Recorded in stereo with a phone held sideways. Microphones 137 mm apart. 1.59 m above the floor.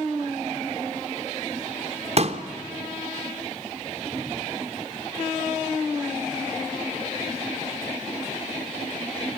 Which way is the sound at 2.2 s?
50° right (ahead or behind).